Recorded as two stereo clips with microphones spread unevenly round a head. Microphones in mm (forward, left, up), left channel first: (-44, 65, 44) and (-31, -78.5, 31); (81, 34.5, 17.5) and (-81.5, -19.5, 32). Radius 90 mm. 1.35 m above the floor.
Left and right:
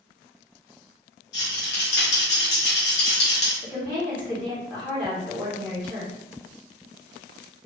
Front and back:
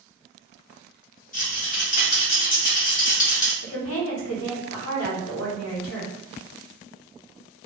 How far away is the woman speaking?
About 1.0 m.